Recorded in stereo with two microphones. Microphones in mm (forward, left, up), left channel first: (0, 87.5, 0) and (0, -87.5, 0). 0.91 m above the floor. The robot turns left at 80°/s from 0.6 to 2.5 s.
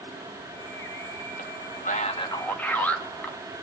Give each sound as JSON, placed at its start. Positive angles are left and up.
{"t": 1.4, "sound": "a man speaking", "side_deg": 60, "distance_m": 1.6}